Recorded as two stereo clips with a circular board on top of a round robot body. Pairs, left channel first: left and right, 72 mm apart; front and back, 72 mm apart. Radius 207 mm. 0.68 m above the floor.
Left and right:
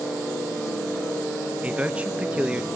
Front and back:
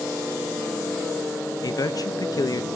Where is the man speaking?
20° right, 1.0 m.